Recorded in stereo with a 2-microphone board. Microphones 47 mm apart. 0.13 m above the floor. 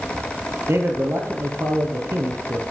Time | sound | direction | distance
0.7 | a man speaking | 65° right (ahead or behind) | 4 m